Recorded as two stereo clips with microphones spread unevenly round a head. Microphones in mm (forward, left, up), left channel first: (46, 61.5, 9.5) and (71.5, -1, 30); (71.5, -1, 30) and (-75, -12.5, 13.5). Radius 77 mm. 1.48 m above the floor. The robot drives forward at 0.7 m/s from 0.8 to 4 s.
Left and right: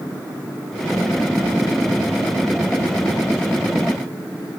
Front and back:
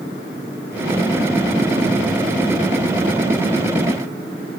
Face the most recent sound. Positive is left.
No sound to turn to.